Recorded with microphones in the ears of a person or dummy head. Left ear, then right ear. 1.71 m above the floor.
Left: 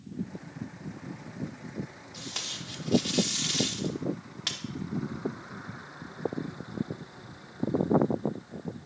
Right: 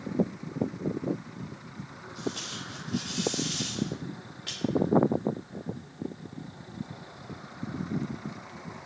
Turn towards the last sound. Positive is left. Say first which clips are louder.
# even
turn(degrees=20)  # may be behind; listen again after turning